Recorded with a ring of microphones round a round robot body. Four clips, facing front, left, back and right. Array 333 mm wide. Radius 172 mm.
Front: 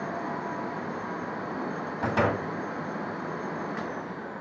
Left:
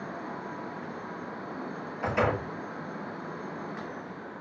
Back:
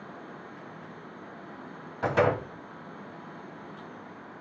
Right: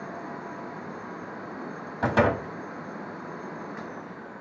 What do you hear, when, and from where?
2.0 s a door slam: 90° right, 2 m